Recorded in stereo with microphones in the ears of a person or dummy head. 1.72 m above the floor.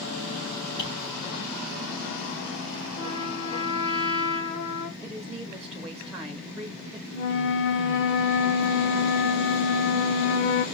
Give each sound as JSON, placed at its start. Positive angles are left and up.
{"t": 0.8, "sound": "tapping", "side_deg": 80, "distance_m": 5.5}
{"t": 3.0, "sound": "a trumpet", "side_deg": 70, "distance_m": 1.9}
{"t": 5.0, "sound": "a woman speaking", "side_deg": -5, "distance_m": 1.5}
{"t": 7.1, "sound": "a flute", "side_deg": 60, "distance_m": 0.9}